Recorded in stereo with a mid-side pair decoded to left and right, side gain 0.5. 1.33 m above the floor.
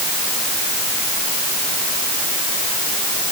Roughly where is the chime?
No chime in this recording.